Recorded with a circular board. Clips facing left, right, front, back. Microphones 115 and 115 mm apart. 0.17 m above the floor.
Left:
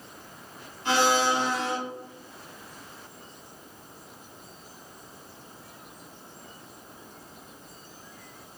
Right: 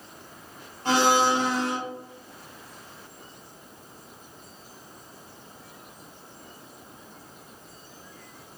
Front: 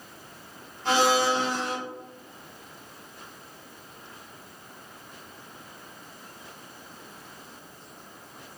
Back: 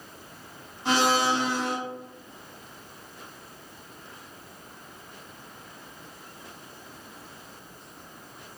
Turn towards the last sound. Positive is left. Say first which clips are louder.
# right 2 dB, front 1 dB
turn(degrees=-105)